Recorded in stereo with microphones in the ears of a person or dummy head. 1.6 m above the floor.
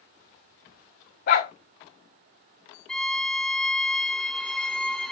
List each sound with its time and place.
1.3 s a dog barking: 50° left (ahead or behind), 1.5 m
2.9 s a violin: centre (ahead or behind), 0.9 m